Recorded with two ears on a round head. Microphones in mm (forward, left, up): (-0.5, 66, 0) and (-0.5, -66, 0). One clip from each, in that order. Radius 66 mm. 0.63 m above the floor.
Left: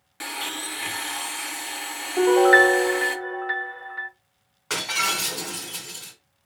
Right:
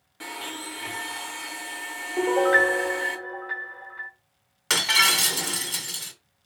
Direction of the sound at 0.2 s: 45° left (ahead or behind).